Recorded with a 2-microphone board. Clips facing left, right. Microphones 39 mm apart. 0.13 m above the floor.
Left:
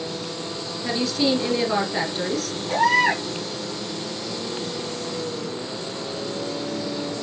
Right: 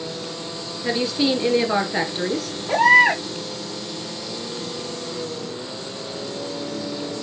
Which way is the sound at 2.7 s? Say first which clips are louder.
Right 5 dB; 30° right (ahead or behind).